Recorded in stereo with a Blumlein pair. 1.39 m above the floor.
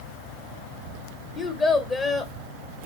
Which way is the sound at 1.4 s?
25° left.